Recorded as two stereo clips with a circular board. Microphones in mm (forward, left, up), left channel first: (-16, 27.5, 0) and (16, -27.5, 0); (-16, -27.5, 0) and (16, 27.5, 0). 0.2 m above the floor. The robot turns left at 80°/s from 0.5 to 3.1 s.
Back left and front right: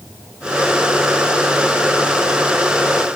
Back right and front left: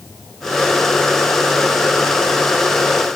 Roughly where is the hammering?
No hammering in this recording.